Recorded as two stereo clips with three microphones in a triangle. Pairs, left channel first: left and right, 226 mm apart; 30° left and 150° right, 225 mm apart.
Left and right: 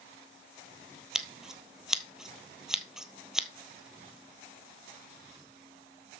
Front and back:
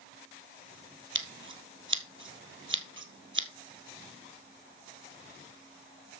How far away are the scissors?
About 1.3 m.